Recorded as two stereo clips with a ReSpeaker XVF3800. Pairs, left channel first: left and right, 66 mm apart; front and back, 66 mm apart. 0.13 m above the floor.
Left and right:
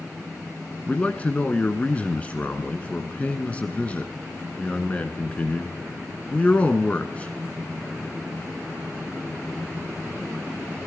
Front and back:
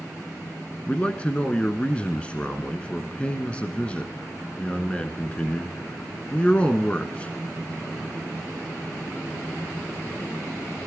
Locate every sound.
0.9 s a man speaking: 50° left, 1.4 m